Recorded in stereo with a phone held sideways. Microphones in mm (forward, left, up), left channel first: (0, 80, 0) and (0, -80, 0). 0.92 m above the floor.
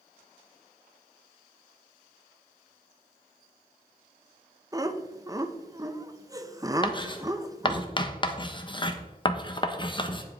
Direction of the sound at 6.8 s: 30° left (ahead or behind).